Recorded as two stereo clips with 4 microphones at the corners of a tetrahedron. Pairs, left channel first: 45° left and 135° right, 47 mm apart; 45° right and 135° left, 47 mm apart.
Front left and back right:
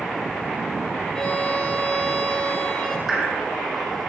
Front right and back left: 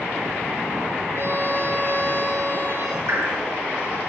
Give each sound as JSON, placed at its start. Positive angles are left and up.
{"t": 1.1, "sound": "a violin", "azimuth_deg": 115, "distance_m": 3.0}
{"t": 3.1, "sound": "dripping", "azimuth_deg": 145, "distance_m": 6.0}